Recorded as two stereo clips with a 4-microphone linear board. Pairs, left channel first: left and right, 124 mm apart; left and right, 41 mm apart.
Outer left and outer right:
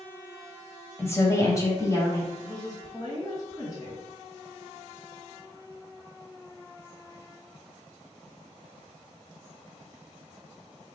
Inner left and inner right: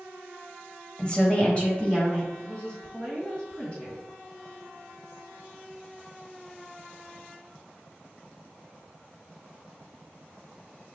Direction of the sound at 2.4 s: 30° left (ahead or behind).